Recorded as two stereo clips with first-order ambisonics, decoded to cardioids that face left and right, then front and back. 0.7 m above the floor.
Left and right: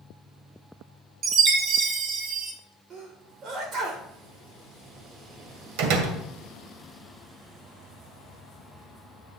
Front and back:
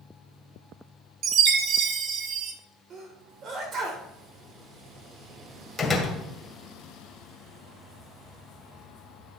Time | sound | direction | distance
1.2 | a chime | 140° right | 1.7 m
2.9 | a sneeze | 135° right | 3.5 m
5.8 | a door slam | 80° right | 1.9 m